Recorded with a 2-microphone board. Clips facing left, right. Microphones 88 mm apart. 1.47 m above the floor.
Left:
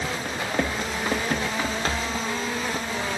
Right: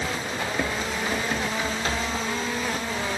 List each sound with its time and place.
0.2 s running footsteps: 55° left (ahead or behind), 2.5 m; by 2.2 s 40° left (ahead or behind), 3 m